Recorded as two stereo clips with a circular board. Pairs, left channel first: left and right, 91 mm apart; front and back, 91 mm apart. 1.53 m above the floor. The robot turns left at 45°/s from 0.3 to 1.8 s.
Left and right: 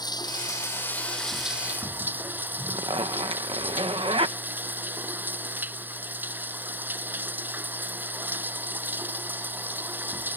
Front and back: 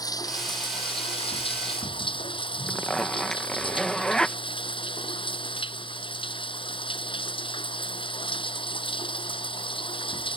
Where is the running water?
45° left; by 10.4 s 20° right.